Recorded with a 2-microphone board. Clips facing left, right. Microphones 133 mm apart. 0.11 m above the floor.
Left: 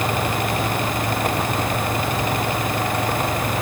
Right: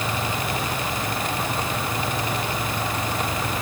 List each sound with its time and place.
Only background noise.